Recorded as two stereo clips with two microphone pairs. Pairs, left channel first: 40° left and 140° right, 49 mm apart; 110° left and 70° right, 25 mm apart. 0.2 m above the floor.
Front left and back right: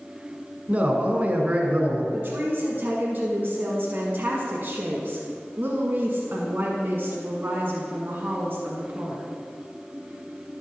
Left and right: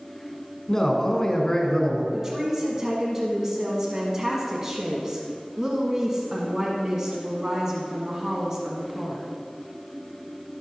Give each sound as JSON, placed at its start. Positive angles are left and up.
{"t": 0.7, "sound": "a man speaking", "azimuth_deg": 175, "distance_m": 1.5}
{"t": 2.1, "sound": "a woman speaking", "azimuth_deg": -130, "distance_m": 1.5}